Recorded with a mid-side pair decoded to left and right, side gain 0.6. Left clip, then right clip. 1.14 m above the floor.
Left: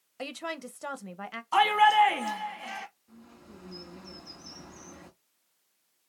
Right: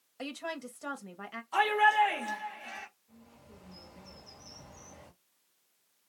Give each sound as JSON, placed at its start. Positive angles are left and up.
{"t": 0.2, "sound": "a woman speaking", "azimuth_deg": 25, "distance_m": 0.6}
{"t": 1.5, "sound": "a shout", "azimuth_deg": 65, "distance_m": 1.6}
{"t": 3.1, "sound": "a bird", "azimuth_deg": 65, "distance_m": 1.5}